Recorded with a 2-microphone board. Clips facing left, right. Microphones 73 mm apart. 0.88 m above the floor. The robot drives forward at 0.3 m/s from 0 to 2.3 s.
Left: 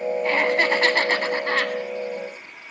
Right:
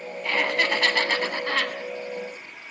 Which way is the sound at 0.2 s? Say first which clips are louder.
Left 2 dB; 35° left (ahead or behind).